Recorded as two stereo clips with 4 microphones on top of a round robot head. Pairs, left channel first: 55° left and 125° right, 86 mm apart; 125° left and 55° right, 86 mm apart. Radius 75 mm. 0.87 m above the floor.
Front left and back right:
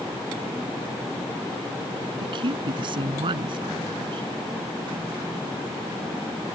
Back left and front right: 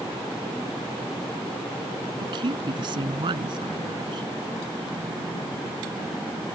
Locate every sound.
2.2 s a woman speaking: 90° right